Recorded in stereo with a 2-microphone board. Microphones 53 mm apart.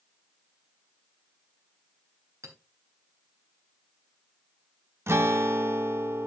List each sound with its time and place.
2.4 s a clink: 70° right (ahead or behind), 3.5 m
5.1 s a guitar: 50° right (ahead or behind), 0.9 m